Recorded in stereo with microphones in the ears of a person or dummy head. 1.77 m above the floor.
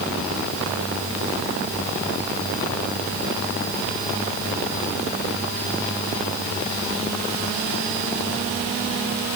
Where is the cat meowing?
I don't hear a cat meowing.